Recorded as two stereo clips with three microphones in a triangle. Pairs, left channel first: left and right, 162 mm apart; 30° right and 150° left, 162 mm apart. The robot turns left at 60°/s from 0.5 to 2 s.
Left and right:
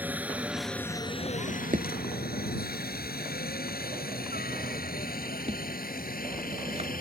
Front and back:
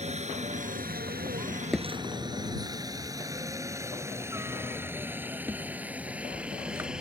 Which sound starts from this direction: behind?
A helicopter, at 0.0 s.